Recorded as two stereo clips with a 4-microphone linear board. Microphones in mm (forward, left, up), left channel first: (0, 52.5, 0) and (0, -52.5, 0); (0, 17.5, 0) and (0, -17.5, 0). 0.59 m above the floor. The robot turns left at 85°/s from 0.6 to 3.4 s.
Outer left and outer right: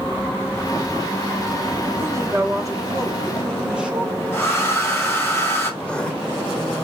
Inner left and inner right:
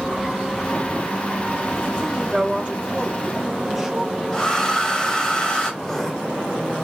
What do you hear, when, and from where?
2.0 s a woman speaking: 40° right, 1.0 m; by 4.2 s 160° right, 1.0 m
4.3 s a hair dryer: 20° left (ahead or behind), 2.0 m
5.8 s writing: 10° left (ahead or behind), 0.7 m